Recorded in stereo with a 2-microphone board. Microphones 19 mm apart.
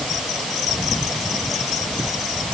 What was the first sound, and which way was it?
Only background noise.